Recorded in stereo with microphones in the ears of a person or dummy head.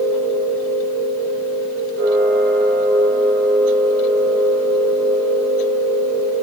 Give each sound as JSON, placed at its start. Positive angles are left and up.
{"t": 0.0, "sound": "a machine running", "side_deg": -85, "distance_m": 4.5}